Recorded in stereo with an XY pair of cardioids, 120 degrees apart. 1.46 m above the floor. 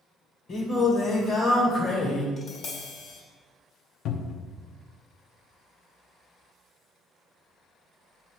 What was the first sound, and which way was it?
Singing, 45° left.